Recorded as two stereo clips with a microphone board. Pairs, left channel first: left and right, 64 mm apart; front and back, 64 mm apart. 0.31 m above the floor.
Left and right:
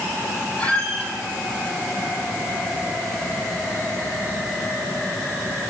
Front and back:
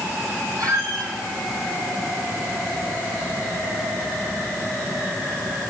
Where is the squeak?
160° left, 8.5 m.